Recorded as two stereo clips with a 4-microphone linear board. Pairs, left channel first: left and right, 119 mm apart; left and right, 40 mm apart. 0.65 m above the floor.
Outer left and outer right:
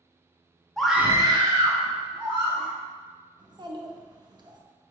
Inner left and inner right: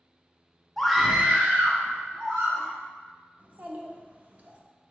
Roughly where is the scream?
Centre.